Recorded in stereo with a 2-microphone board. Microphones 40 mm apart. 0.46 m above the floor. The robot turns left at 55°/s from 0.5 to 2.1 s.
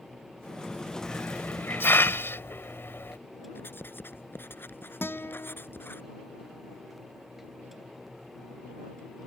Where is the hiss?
30° left (ahead or behind); by 3.2 s 65° left (ahead or behind).